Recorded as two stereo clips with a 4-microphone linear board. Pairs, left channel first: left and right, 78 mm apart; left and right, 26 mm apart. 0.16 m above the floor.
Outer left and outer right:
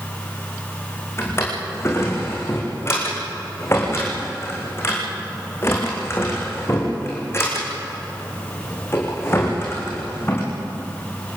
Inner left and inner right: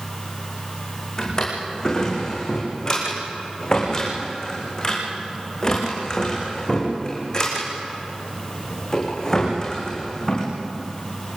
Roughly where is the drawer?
Left.